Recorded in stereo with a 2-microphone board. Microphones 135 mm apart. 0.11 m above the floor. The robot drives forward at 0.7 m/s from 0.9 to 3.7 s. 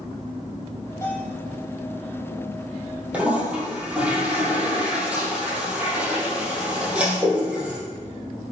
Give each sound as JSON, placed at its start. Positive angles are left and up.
{"t": 1.0, "sound": "a bell", "side_deg": 20, "distance_m": 4.0}
{"t": 3.1, "sound": "a toilet flushing", "side_deg": -10, "distance_m": 2.5}